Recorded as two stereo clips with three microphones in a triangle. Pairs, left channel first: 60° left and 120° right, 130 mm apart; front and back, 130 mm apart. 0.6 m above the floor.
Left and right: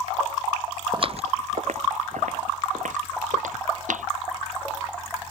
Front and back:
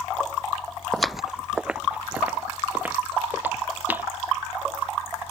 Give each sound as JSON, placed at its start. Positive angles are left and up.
{"t": 0.9, "sound": "footsteps", "azimuth_deg": -85}